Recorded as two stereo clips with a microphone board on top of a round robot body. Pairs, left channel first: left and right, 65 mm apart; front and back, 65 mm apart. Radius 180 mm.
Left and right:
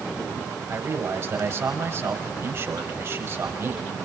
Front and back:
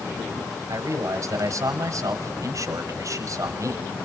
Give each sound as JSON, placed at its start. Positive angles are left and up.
{"t": 0.7, "sound": "a man speaking", "azimuth_deg": -145, "distance_m": 5.5}